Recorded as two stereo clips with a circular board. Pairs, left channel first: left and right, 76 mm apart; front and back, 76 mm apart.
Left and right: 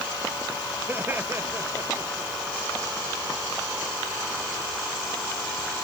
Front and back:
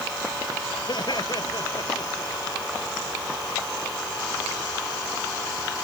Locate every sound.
0.9 s laughter: 25° right; by 2.3 s 35° right